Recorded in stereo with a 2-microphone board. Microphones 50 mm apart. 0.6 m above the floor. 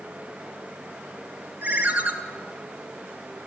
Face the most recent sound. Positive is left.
turn(degrees=-35)  # may be behind; listen again after turning